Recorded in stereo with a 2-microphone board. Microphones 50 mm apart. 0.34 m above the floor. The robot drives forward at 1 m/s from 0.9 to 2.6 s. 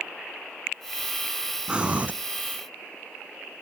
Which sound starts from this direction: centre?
Breathing, at 1.7 s.